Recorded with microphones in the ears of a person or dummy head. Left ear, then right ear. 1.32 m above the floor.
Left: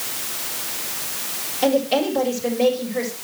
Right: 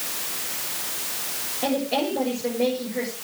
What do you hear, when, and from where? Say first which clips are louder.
1.6 s a woman speaking: left 6 dB; 55° left (ahead or behind), 5.5 m